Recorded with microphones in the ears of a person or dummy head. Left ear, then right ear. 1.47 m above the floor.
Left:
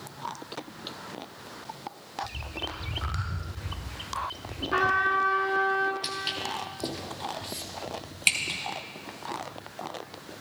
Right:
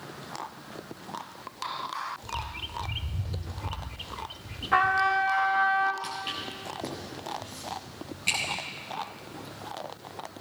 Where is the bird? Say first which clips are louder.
Even; 5° right (ahead or behind), 0.6 m.